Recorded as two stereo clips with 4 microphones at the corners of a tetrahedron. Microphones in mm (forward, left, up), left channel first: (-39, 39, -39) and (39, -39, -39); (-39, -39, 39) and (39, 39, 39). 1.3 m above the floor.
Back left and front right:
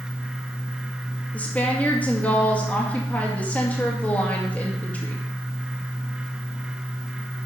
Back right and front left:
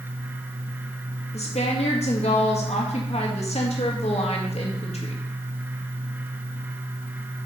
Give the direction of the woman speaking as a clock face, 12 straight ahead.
5 o'clock.